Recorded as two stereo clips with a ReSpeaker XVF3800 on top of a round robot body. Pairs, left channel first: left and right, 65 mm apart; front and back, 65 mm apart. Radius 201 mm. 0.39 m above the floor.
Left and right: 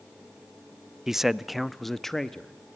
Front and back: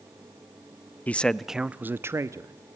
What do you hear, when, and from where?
1.1 s a man speaking: 15° right, 1.0 m; by 2.5 s 170° left, 1.4 m